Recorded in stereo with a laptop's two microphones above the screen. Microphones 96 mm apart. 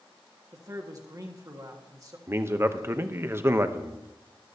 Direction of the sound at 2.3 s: 25° right (ahead or behind).